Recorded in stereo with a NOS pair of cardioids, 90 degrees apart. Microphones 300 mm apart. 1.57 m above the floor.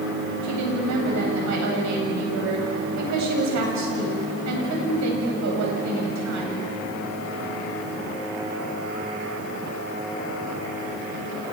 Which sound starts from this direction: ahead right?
A woman speaking, at 0.4 s.